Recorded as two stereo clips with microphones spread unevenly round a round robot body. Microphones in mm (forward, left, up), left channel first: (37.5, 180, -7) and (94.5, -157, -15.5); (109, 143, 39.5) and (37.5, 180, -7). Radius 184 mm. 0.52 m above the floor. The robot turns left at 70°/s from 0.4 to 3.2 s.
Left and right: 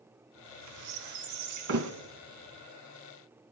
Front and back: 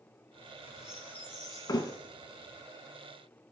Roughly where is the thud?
Ahead right.